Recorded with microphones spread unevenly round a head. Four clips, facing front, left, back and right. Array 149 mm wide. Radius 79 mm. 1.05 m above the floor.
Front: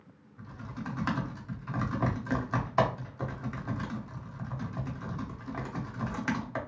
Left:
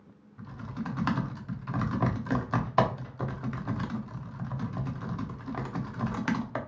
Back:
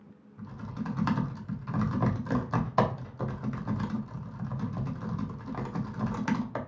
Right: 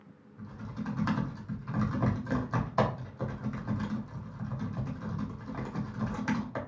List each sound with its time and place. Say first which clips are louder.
0.4 s typing on a keyboard: left 2 dB, back 3 dB; 135° left, 0.8 m